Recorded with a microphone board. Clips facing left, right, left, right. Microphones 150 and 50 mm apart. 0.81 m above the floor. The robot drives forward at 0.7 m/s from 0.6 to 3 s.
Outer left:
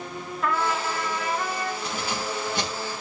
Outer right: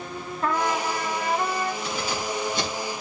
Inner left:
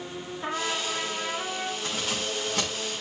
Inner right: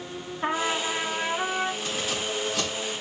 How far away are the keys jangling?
About 6.5 m.